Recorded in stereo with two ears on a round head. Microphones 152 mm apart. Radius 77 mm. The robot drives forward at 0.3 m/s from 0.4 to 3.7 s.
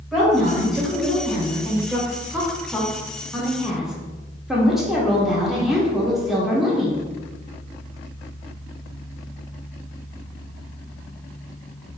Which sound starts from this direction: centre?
A woman speaking, at 0.1 s.